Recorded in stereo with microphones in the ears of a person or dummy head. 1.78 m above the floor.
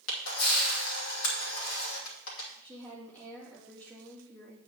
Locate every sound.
0.1 s a camera shutter: 75° left (ahead or behind), 2.5 m
2.6 s a woman speaking: 5° left (ahead or behind), 3.5 m